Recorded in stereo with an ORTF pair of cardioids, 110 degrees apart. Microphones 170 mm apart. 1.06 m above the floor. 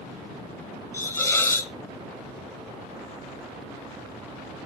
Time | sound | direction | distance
0.9 | a hiss | 15° left | 0.9 m